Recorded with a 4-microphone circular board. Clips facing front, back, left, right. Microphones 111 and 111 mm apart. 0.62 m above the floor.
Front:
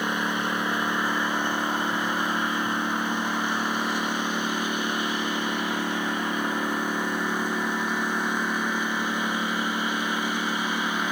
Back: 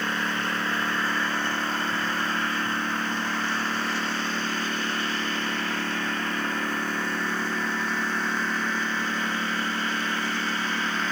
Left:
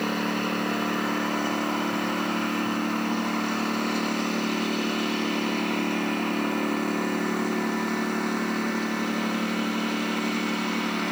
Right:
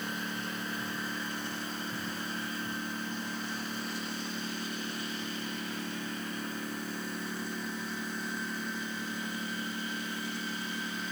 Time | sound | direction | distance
0.0 | a lawn mower | 75° left | ?